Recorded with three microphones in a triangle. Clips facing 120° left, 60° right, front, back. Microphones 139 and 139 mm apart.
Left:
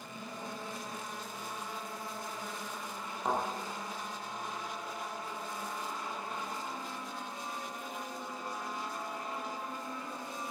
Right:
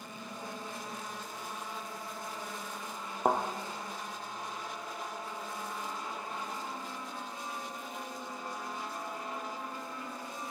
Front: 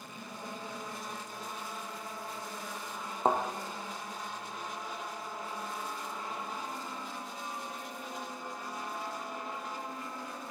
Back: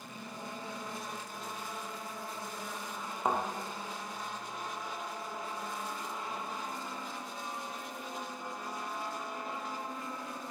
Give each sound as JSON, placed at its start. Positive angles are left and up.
{"t": 3.2, "sound": "a thud", "azimuth_deg": -55, "distance_m": 1.3}